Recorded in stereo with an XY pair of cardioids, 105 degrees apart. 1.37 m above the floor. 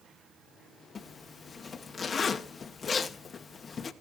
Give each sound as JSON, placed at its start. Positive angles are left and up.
{"t": 0.9, "sound": "a zipper", "azimuth_deg": 40, "distance_m": 1.0}